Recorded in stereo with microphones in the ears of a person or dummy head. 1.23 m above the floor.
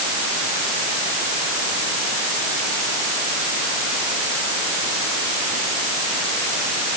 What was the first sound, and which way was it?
Only background noise.